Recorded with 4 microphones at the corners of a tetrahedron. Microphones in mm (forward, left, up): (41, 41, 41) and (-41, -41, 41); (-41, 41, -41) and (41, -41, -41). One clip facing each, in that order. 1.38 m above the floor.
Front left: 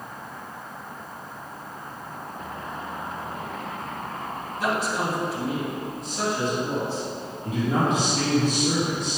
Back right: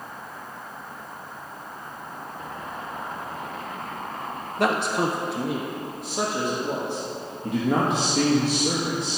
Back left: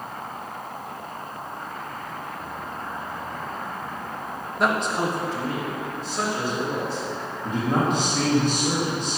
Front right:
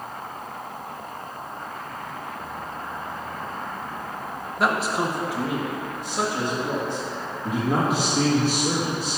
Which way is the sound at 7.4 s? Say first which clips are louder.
Back right 1 dB, even; 125° right.